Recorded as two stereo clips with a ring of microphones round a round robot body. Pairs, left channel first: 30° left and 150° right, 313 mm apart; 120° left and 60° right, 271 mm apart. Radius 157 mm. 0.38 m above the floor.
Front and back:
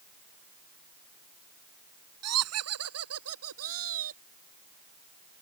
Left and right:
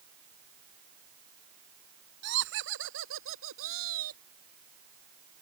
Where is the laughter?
115° right; by 4.2 s 105° right.